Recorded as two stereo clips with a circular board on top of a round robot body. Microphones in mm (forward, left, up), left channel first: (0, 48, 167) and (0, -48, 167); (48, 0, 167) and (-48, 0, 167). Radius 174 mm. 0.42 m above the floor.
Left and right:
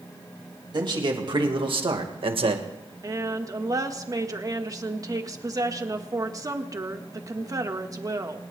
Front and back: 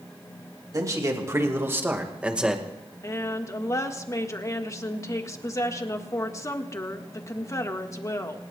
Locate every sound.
0.7 s a man speaking: 125° right, 2.5 m; by 2.6 s 95° right, 1.8 m
3.0 s a woman speaking: 50° right, 1.7 m